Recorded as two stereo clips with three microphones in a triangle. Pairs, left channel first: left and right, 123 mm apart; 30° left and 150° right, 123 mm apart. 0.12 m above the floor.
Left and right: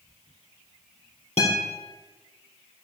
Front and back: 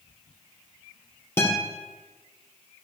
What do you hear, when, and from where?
1.4 s a guitar: 95° left, 3 m